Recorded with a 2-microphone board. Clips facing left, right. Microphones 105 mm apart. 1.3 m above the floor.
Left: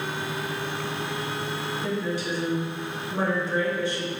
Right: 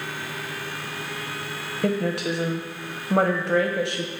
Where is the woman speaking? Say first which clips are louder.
Right 6 dB; 65° right (ahead or behind), 1.1 m.